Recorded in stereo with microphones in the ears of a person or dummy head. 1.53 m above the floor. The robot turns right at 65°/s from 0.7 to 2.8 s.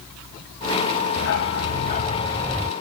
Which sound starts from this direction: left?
A dog barking, at 1.2 s.